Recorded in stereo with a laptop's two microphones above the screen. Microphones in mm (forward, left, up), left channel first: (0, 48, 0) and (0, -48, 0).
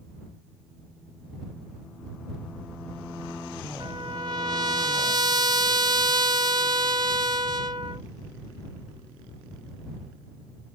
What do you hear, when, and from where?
3.8 s a trumpet: 50° right (ahead or behind)